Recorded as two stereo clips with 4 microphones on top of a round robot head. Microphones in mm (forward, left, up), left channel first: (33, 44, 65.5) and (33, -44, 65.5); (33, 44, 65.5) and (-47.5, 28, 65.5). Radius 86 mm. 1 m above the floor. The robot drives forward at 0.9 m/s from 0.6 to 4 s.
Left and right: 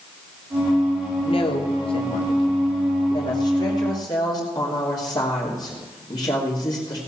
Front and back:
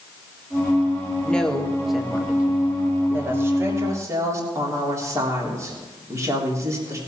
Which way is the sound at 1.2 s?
90° left.